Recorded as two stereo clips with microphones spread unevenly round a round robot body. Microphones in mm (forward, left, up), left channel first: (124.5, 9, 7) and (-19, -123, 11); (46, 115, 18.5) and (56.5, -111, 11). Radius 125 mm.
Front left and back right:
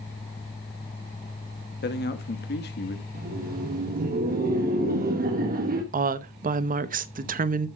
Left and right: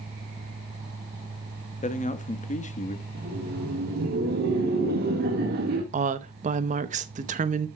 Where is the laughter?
115° right, 1.3 m.